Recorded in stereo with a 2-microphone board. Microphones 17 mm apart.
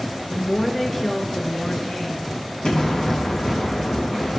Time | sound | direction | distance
0.3 | a woman speaking | 5° right (ahead or behind) | 1.5 m
2.6 | an explosion | 70° left (ahead or behind) | 3 m